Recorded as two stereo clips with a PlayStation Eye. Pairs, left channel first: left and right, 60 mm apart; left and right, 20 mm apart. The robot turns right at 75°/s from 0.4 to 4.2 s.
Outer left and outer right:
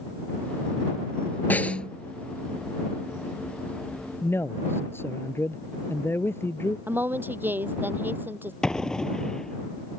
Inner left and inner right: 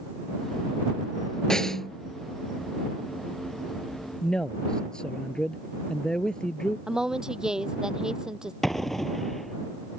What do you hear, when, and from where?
1.5 s a snare drum: 130° left; by 1.9 s 165° left
4.2 s a man speaking: 45° left (ahead or behind)
6.9 s a woman speaking: 35° right (ahead or behind)
8.6 s an explosion: 10° left (ahead or behind)